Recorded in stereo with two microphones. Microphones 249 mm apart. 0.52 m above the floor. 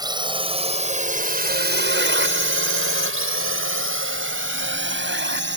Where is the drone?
15° right (ahead or behind); by 5.6 s 45° right (ahead or behind).